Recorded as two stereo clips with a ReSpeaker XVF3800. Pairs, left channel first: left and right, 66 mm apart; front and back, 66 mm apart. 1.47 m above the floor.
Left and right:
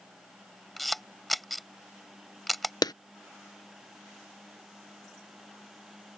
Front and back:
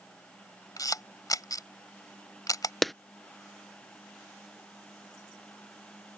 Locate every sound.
0.8 s a camera shutter: straight ahead
2.8 s a clap: 90° left